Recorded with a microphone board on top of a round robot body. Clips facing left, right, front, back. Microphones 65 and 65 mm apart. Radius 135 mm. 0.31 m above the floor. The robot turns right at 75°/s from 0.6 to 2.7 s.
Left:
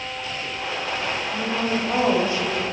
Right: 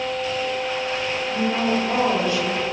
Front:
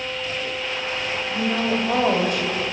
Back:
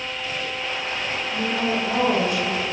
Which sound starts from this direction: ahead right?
A woman speaking, at 1.3 s.